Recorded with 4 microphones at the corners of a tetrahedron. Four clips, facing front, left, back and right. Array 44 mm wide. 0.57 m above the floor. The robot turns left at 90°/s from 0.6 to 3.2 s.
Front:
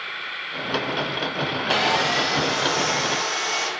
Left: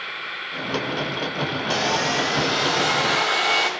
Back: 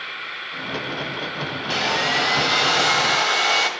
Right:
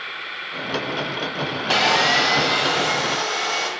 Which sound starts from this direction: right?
Sawing, at 1.7 s.